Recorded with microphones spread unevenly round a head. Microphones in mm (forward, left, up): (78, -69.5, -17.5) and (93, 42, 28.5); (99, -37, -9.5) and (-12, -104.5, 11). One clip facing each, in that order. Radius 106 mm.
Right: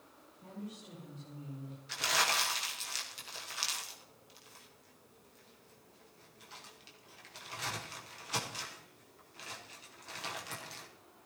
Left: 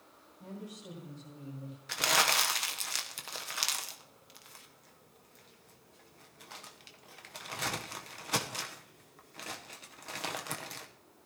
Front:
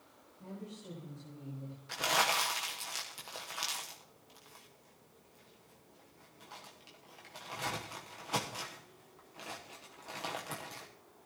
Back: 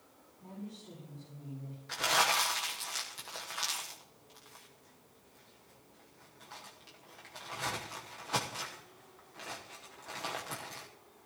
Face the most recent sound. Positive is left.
turn(degrees=115)